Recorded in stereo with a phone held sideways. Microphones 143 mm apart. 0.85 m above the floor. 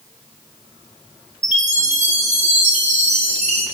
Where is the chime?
55° right (ahead or behind), 1.0 m.